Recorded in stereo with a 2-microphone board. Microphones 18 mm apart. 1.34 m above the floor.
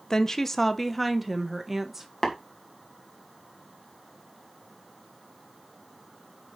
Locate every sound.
0.1 s a woman speaking: 35° left (ahead or behind), 1.0 m; by 2.1 s 15° right (ahead or behind), 1.6 m
2.2 s tapping: 30° left (ahead or behind), 2 m